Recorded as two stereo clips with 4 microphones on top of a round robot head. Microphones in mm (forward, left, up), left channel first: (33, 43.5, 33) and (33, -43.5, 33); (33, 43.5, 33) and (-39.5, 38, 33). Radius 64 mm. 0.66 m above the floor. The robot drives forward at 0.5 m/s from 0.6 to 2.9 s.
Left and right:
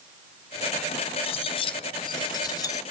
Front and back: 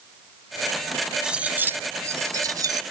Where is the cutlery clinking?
105° left, 0.6 m; by 2.8 s 150° left, 1.1 m.